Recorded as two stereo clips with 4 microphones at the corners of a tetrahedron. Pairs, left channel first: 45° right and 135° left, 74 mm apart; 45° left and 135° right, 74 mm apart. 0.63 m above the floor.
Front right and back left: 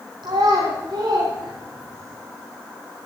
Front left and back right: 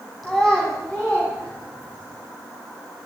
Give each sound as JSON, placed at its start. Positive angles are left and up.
{"t": 0.2, "sound": "a child speaking", "azimuth_deg": 135, "distance_m": 3.0}